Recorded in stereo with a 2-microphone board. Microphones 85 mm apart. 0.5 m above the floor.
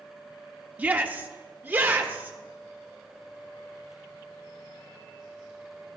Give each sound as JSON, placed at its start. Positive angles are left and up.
{"t": 0.8, "sound": "a shout", "side_deg": -20, "distance_m": 0.7}